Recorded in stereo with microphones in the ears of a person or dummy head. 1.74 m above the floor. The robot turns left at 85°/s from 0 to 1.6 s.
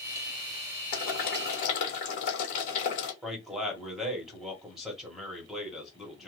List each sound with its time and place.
0.9 s boiling: 115° left, 1.5 m; by 3.1 s 60° left, 1.5 m
3.2 s a man speaking: 5° right (ahead or behind), 1.3 m